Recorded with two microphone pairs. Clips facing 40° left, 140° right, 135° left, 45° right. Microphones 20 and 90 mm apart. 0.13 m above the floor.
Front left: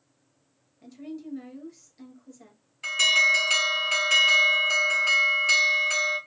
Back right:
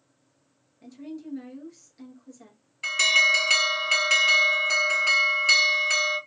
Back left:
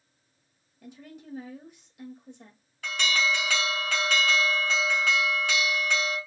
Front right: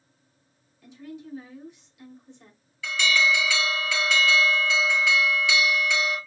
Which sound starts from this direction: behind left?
A woman speaking, at 0.8 s.